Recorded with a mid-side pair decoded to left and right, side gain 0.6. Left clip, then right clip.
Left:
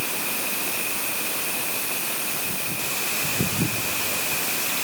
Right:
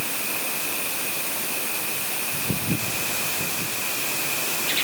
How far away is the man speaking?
I don't hear a man speaking.